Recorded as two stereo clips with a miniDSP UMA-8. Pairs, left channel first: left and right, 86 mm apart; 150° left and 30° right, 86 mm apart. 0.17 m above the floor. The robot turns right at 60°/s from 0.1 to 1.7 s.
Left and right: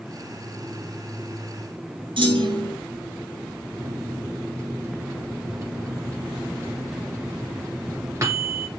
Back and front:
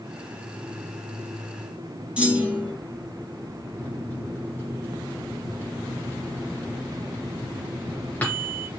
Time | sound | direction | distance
2.2 | a clunk | 105° right | 3 m
3.8 | a microwave | 140° right | 1.9 m